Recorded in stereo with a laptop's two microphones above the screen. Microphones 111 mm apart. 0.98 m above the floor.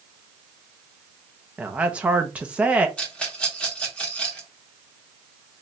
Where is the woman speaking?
10° right (ahead or behind), 0.6 m.